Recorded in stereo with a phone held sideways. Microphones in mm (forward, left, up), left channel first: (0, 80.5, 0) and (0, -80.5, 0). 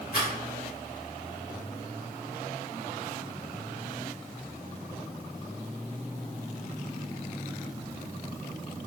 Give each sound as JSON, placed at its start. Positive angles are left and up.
{"t": 0.1, "sound": "a rattle", "side_deg": 70, "distance_m": 1.0}